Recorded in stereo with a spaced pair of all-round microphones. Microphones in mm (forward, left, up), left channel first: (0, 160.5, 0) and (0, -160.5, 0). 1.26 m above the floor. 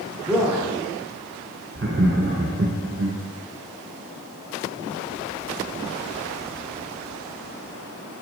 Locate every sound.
0.3 s a man speaking: 5° right (ahead or behind), 3 m
1.8 s laughter: 40° right (ahead or behind), 0.9 m